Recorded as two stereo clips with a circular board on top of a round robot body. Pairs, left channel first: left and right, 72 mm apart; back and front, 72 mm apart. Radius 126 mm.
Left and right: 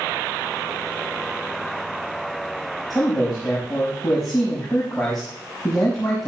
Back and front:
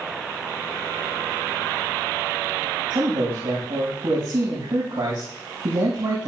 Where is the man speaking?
Straight ahead, 5.5 m.